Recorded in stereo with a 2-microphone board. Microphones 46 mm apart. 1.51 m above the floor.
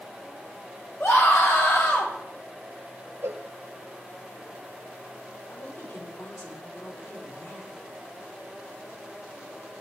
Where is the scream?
75° left (ahead or behind), 6 m; by 2.1 s 80° left, 7 m.